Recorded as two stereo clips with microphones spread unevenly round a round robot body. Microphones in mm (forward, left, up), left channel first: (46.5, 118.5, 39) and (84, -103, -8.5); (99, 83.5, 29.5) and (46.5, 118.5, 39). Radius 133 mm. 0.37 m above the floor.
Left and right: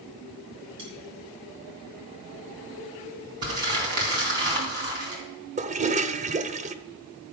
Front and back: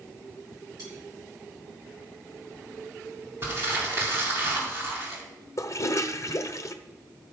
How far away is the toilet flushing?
About 0.9 m.